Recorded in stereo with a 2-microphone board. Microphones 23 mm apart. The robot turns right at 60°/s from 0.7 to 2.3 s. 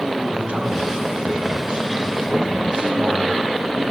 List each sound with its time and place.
0.3 s a man speaking: 130° right, 5 m; by 3.8 s 35° right, 5 m